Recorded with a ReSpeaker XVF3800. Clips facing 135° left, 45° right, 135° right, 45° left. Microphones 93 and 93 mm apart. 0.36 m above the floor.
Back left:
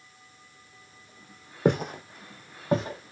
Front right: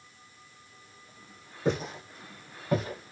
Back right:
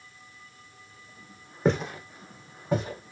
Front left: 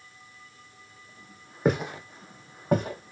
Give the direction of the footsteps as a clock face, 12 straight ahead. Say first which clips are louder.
Back left 5 dB, even; 8 o'clock.